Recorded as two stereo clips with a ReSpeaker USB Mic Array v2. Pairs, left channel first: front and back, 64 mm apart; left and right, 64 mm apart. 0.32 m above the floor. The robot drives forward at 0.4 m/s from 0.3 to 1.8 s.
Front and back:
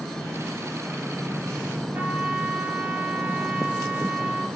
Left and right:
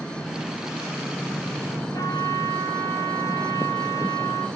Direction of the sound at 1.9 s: 110° left.